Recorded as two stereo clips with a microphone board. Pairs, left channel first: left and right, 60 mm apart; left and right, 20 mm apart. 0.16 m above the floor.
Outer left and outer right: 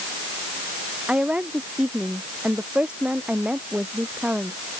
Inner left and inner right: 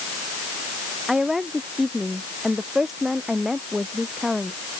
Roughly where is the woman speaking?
Centre.